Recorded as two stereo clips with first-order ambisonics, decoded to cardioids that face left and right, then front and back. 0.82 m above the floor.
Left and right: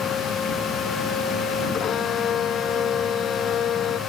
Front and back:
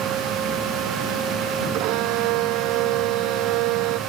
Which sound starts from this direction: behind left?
A violin, at 1.7 s.